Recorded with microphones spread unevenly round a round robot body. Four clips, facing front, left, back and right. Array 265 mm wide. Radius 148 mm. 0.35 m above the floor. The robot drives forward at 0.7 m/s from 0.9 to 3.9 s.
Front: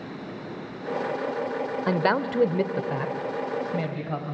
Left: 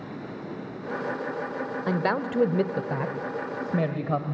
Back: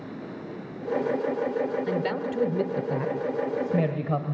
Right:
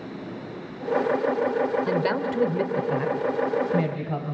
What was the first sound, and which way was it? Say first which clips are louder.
A man speaking: right 2 dB, front 4 dB; 5° right.